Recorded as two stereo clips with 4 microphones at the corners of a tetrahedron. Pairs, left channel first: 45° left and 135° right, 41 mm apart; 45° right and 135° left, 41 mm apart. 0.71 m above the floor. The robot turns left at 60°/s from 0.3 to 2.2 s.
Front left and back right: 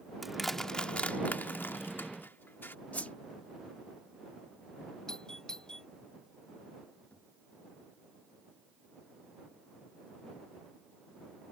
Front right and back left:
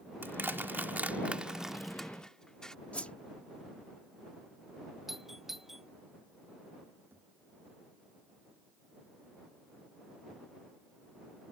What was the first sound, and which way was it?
Crushing, 140° left.